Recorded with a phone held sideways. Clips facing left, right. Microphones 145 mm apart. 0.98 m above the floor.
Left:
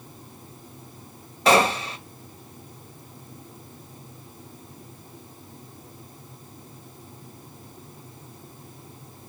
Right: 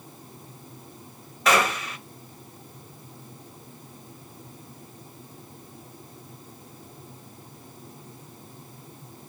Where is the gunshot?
30° left (ahead or behind), 1.2 m.